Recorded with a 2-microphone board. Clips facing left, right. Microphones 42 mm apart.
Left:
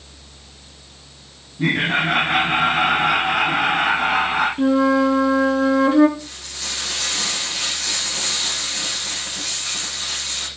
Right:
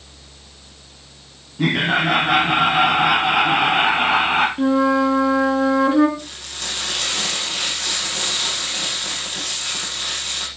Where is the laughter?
80° right, 7 m.